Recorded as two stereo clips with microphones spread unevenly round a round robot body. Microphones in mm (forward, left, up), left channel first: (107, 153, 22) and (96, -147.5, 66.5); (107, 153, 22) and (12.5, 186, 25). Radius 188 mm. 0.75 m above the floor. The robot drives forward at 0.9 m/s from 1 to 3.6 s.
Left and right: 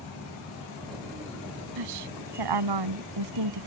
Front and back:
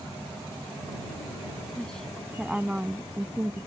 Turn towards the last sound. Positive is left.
turn(degrees=-115)